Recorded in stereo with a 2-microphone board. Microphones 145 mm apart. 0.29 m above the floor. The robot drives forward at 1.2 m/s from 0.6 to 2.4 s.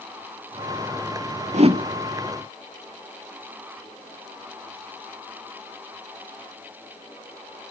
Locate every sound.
1.5 s a whoosh: 55° right (ahead or behind), 0.5 m; by 1.8 s 35° right (ahead or behind), 0.8 m